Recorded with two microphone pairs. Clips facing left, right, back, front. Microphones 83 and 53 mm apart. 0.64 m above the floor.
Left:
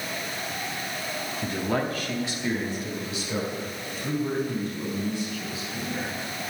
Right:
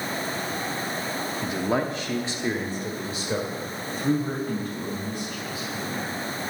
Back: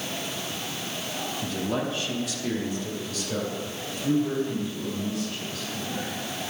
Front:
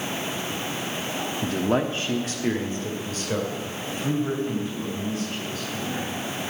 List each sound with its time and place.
1.4 s a man speaking: 5° right, 0.8 m; by 6.1 s 55° right, 5 m